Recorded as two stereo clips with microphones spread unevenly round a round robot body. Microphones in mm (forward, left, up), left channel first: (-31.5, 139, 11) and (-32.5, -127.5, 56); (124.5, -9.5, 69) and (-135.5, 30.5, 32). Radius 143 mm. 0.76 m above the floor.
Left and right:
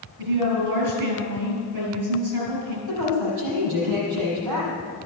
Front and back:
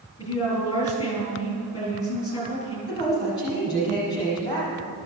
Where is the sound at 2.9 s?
80° right, 6.5 m.